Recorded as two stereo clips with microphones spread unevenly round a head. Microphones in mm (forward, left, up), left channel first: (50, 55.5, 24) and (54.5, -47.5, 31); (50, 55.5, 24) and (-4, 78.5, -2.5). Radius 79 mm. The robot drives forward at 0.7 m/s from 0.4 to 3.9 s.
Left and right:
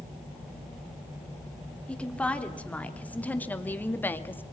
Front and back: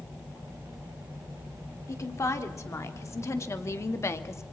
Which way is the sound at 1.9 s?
15° left.